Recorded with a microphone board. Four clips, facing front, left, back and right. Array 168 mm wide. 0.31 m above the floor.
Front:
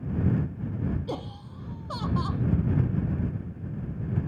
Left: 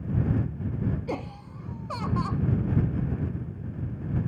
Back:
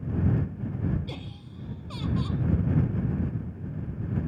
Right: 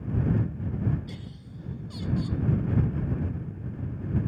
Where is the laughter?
55° left.